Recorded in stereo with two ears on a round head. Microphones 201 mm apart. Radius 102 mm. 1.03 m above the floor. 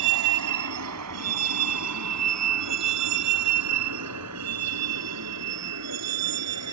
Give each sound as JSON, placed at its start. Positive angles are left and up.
{"t": 0.0, "sound": "a vehicle", "side_deg": -85}